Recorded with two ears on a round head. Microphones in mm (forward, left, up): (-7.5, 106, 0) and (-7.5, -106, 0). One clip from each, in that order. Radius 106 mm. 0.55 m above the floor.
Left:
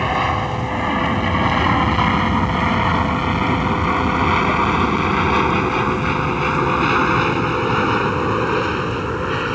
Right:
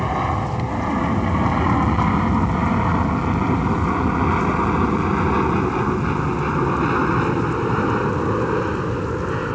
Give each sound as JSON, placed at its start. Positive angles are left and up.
{"t": 0.0, "sound": "an aircraft", "side_deg": 65}